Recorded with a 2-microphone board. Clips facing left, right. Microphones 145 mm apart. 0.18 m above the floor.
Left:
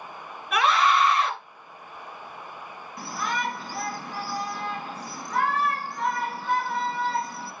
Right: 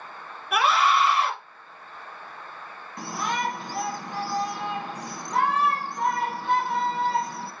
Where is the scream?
5° right (ahead or behind), 2.5 m.